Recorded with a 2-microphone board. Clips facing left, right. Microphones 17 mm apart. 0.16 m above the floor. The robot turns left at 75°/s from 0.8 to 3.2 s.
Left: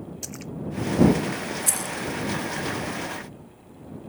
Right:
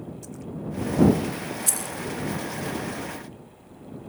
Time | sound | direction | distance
0.2 | a splash | 80° left | ?
1.7 | keys jangling | centre (ahead or behind) | ?